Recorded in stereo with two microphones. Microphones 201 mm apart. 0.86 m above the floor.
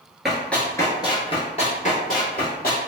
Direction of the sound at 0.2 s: Centre (ahead or behind).